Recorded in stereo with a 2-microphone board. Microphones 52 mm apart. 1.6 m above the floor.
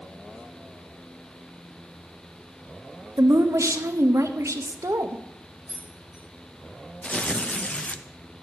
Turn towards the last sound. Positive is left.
turn(degrees=25)  # may be behind; listen again after turning